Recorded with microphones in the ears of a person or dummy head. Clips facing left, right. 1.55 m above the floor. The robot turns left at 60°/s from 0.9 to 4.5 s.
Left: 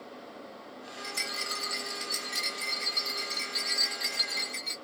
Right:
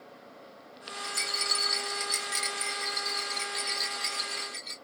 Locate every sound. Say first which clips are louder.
1.0 s a rattle: right 2 dB; 15° right, 1.6 m; by 4.8 s 135° left, 1.6 m